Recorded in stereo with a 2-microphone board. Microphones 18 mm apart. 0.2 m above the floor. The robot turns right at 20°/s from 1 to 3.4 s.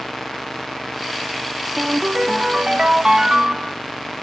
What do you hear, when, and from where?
1.8 s a ringtone: 90° right, 0.5 m; by 3.7 s 55° right, 0.5 m